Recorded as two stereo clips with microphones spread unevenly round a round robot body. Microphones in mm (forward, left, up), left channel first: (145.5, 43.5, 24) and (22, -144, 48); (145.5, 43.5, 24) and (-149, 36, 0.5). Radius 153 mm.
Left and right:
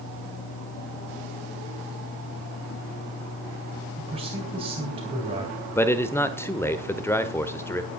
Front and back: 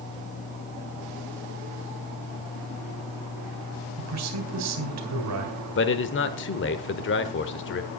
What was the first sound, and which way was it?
A man speaking, 165° left.